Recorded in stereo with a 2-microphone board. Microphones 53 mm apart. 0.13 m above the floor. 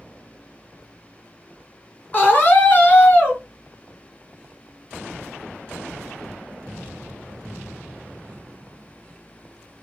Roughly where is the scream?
Left.